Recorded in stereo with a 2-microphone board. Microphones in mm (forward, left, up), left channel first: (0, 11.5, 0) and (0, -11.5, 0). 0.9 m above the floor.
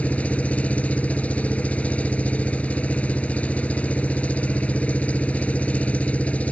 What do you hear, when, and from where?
0.0 s an engine running: 70° left (ahead or behind)